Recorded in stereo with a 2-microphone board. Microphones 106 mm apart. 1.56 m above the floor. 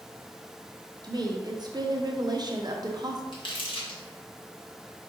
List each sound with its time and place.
1.0 s a woman speaking: 40° right (ahead or behind), 0.6 m
3.3 s crumpling: 50° left (ahead or behind), 1.2 m